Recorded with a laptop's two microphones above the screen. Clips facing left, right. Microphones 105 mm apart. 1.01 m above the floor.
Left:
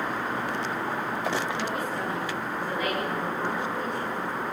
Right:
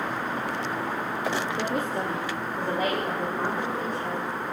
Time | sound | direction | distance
1.6 | a woman speaking | 60° right (ahead or behind) | 2 m